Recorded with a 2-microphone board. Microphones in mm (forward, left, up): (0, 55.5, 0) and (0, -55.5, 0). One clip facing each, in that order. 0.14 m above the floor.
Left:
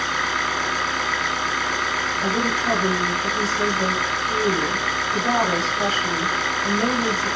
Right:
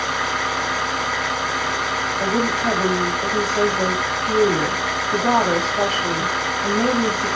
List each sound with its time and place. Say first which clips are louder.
0.0 s an engine running: right 2 dB; 15° right (ahead or behind), 6.5 m
2.2 s a woman speaking: right 3 dB; 45° right (ahead or behind), 7.5 m